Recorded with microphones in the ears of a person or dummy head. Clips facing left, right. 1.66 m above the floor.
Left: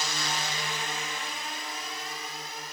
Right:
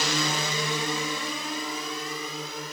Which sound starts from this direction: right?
A drone, at 0.0 s.